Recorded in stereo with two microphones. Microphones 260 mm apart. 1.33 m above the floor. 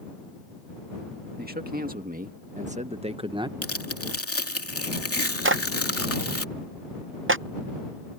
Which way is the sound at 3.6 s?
60° left (ahead or behind).